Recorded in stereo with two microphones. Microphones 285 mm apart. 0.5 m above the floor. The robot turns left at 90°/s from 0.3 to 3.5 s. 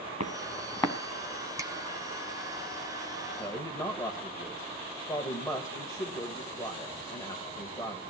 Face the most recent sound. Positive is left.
turn(degrees=15)  # may be behind; listen again after turning